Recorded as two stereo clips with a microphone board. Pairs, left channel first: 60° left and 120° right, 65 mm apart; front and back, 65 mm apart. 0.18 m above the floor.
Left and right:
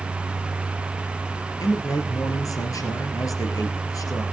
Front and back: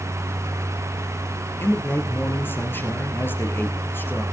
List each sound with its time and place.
1.6 s a man speaking: 50° left, 3 m